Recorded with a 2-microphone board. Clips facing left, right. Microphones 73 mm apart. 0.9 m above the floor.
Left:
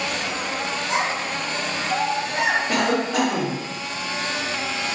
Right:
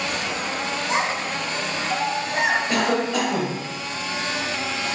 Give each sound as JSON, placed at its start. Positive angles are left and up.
{"t": 0.9, "sound": "a child speaking", "side_deg": -20, "distance_m": 1.0}
{"t": 2.7, "sound": "a cough", "side_deg": 25, "distance_m": 1.9}